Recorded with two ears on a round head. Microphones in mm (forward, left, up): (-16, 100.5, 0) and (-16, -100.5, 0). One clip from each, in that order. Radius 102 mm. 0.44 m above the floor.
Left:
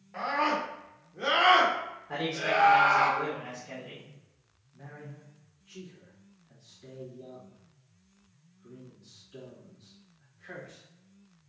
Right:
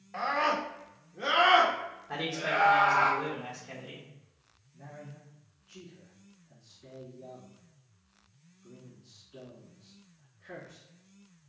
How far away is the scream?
About 1.2 m.